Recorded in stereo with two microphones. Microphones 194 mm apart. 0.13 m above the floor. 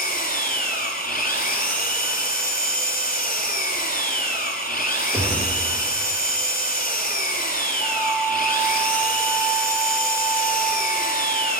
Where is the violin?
40° left (ahead or behind), 3 m.